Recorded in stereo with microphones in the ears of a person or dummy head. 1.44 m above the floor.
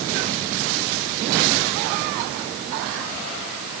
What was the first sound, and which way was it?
Only background noise.